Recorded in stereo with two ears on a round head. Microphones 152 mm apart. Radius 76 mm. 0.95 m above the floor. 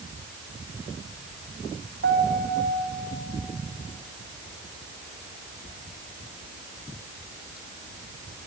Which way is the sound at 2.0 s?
85° right.